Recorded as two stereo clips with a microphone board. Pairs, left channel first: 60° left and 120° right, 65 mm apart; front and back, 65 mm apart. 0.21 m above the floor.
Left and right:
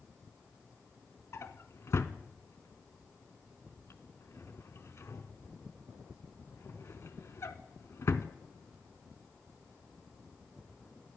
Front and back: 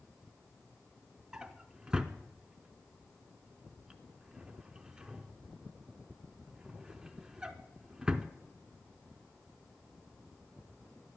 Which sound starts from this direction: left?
A drawer, at 1.3 s.